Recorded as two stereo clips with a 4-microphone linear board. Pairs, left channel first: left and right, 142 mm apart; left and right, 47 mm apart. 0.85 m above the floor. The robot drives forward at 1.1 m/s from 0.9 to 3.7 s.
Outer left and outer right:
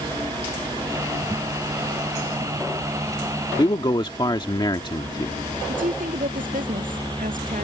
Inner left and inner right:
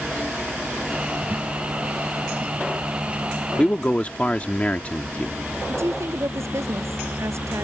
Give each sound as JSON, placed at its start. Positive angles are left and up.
{"t": 3.6, "sound": "a man speaking", "side_deg": 30}
{"t": 5.7, "sound": "a woman speaking", "side_deg": -75}